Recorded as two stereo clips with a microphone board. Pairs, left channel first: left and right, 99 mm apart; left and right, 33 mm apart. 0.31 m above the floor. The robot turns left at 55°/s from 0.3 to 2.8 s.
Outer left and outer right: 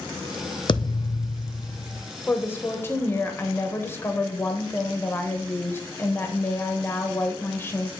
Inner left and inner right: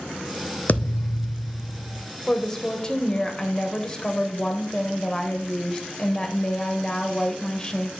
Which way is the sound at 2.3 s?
15° left (ahead or behind).